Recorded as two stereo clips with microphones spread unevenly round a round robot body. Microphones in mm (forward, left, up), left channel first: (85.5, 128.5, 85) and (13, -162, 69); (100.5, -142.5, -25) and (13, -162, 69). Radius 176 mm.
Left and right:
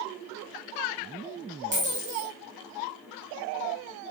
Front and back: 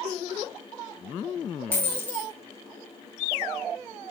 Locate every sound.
1.7 s a dropped coin: 50° right, 4 m